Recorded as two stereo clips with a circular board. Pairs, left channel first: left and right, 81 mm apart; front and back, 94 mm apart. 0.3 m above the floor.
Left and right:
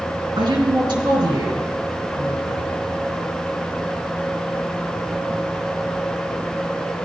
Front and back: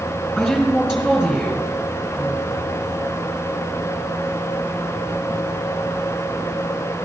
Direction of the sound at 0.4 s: 95° right.